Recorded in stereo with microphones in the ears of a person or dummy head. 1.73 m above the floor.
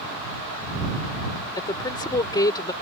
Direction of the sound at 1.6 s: 25° left (ahead or behind).